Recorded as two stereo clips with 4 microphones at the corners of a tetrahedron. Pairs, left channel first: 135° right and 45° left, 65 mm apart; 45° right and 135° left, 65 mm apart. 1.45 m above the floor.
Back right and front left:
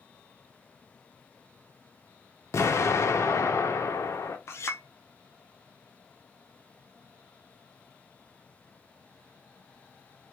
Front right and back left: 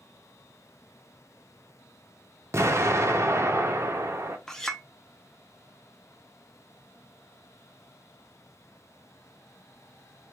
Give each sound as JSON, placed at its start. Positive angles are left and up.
{"t": 2.5, "sound": "an explosion", "azimuth_deg": 180, "distance_m": 0.5}
{"t": 4.5, "sound": "a clink", "azimuth_deg": -125, "distance_m": 0.5}